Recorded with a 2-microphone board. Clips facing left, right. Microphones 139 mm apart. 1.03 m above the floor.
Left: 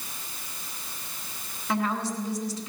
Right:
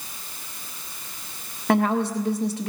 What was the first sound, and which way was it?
A woman speaking, 60° right (ahead or behind).